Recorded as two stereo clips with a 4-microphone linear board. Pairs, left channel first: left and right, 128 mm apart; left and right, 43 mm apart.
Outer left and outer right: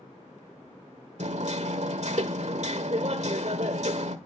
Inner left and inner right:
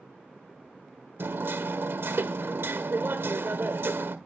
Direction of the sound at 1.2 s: 60° right (ahead or behind).